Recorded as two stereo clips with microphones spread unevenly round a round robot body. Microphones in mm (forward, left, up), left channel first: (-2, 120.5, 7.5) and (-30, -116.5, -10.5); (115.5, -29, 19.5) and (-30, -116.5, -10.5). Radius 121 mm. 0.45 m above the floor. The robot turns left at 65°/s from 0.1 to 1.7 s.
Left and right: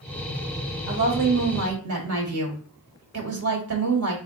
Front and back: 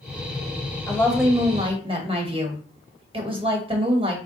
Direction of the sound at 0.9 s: 45° right.